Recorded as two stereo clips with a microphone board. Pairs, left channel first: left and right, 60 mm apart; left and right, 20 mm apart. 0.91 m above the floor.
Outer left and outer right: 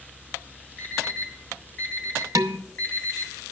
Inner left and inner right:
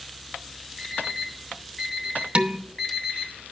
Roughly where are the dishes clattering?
Right.